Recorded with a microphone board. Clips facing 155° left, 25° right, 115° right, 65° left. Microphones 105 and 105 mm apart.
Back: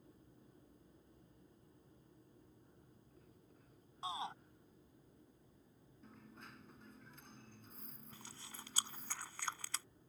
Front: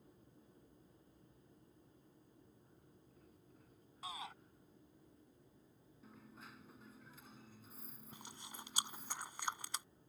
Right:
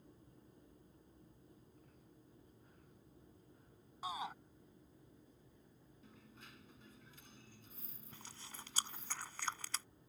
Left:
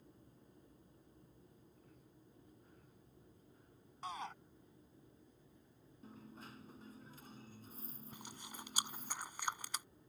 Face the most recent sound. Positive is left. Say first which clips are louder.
# front 4 dB, left 1 dB
turn(degrees=15)